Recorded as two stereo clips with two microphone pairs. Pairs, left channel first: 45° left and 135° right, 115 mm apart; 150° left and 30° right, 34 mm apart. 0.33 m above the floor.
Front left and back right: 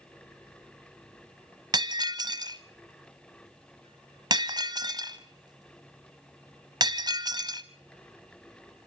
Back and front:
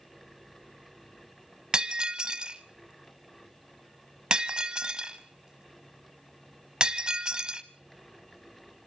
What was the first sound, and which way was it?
Breaking glass, 90° right.